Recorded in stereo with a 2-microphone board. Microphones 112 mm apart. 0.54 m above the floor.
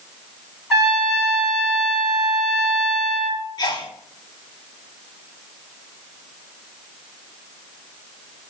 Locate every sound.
0.7 s a trumpet: centre (ahead or behind), 2.5 m
3.6 s a sneeze: 40° left (ahead or behind), 1.1 m